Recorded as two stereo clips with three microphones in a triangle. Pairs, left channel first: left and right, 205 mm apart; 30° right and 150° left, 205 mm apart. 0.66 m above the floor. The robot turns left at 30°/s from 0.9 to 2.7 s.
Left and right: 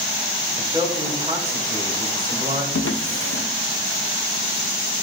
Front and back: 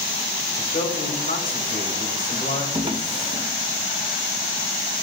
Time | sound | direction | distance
0.6 | a man speaking | 25° right | 1.5 m
2.7 | a drawer | 85° left | 0.6 m